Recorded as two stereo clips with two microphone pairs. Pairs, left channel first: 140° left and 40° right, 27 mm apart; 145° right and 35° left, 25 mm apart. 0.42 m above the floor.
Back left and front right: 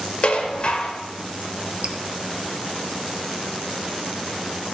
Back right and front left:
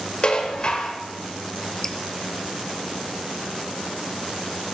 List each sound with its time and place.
0.2 s dishes clattering: straight behind, 0.9 m
1.8 s dripping: 75° right, 0.6 m